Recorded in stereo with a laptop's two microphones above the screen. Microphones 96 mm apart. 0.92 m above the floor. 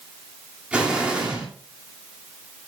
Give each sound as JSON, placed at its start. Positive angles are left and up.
{"t": 0.7, "sound": "an explosion", "side_deg": -10, "distance_m": 3.0}